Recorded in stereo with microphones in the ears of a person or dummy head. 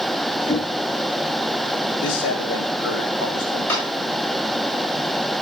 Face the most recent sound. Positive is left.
turn(degrees=15)  # may be behind; listen again after turning